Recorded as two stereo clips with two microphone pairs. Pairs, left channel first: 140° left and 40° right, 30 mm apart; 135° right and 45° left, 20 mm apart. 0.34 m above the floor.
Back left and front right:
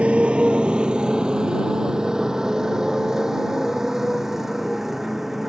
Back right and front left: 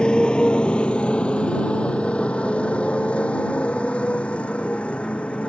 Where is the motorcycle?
95° right; by 5.5 s 125° right.